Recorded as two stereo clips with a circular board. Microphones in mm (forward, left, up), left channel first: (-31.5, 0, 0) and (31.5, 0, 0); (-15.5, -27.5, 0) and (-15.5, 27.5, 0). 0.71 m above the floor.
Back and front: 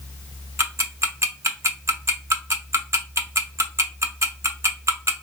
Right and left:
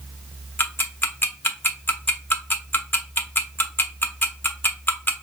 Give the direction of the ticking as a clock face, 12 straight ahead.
1 o'clock.